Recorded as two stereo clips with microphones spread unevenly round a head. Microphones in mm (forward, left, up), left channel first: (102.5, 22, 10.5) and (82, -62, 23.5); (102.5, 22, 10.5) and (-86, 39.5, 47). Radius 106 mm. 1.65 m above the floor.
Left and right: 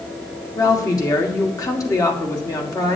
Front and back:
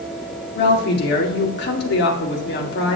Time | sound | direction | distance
0.6 | a woman speaking | 25° left | 1.7 m